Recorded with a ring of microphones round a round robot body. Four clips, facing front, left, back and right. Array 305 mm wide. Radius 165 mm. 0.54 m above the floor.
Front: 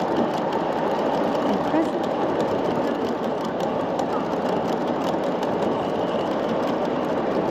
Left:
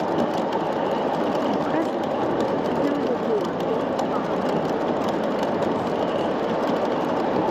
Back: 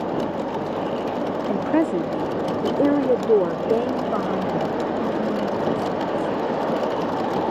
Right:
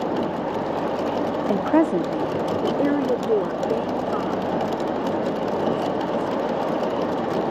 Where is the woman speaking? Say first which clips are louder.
Right 4 dB, back 1 dB; 85° right; by 6.4 s 170° left.